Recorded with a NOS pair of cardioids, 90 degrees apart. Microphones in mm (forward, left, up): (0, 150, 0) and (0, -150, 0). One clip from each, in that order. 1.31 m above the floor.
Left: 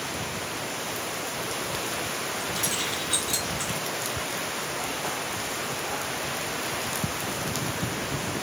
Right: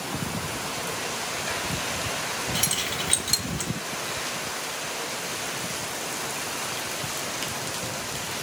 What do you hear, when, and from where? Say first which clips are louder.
2.5 s keys jangling: right 2 dB; 55° right, 1.3 m